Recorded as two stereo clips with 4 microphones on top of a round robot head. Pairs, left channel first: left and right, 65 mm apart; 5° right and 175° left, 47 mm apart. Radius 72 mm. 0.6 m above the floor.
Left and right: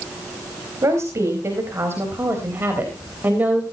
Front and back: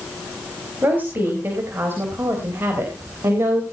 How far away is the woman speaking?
About 4.5 m.